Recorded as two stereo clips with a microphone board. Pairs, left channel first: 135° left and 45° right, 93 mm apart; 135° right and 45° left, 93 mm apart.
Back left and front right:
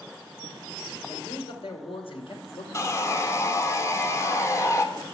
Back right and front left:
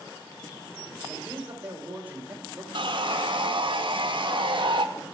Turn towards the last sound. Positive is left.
turn(degrees=75)